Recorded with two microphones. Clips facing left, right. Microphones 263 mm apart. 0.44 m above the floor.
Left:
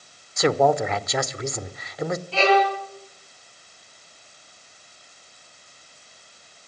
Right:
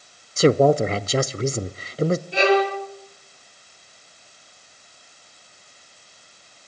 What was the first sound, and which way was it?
A man speaking, 35° right (ahead or behind).